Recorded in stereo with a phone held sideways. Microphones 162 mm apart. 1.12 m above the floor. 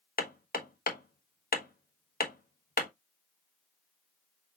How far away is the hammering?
About 1.1 m.